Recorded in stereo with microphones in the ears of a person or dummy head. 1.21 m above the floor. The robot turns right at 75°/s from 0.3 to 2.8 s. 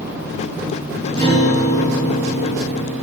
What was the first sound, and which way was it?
A guitar, 25° left.